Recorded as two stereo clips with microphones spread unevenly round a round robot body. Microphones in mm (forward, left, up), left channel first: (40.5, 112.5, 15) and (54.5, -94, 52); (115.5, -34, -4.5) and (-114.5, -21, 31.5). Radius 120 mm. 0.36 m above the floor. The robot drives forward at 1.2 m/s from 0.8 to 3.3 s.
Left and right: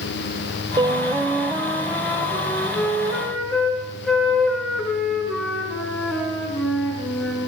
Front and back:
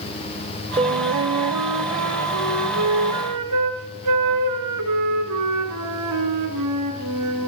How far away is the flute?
About 0.6 m.